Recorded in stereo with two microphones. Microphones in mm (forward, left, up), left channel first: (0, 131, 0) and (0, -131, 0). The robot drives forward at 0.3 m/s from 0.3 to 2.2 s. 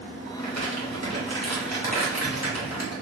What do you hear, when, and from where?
0.4 s crumpling: 80° right, 1.4 m; by 2.9 s 75° right (ahead or behind), 1.4 m